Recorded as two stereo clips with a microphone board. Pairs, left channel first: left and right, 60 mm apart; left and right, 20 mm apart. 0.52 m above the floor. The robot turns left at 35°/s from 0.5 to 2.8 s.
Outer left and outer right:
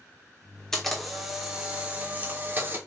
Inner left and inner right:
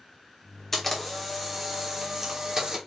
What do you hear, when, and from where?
0.7 s a camera shutter: 15° left, 1.2 m; by 2.8 s 60° right, 1.2 m